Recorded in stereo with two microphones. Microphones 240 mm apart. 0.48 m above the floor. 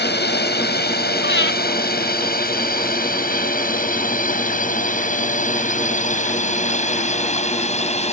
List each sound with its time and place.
0.0 s a drone: 45° left (ahead or behind); by 8.1 s 25° left (ahead or behind)
1.2 s breathing: 50° left (ahead or behind)